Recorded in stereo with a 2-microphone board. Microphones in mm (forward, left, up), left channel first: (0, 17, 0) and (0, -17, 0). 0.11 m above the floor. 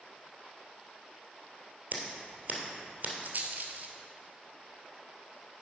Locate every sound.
1.9 s scissors: 50° right (ahead or behind), 2.0 m
3.2 s a rattle: 55° right (ahead or behind), 1.1 m